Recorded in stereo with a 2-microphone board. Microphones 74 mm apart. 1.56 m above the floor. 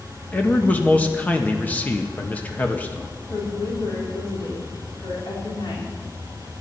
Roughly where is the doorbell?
I don't hear a doorbell.